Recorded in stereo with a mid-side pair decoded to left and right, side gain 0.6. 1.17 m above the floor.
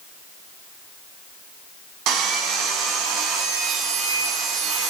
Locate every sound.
2.1 s sawing: 65° right, 8.5 m